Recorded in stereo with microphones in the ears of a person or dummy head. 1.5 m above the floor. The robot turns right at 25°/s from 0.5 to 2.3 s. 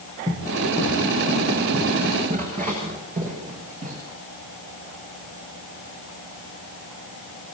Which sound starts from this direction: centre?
Running footsteps, at 0.3 s.